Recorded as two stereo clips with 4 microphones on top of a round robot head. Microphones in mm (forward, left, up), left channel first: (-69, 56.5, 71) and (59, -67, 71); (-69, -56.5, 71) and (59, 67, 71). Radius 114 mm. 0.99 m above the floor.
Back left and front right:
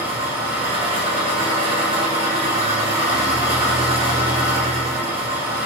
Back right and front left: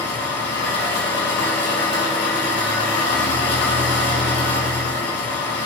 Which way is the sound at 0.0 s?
105° right.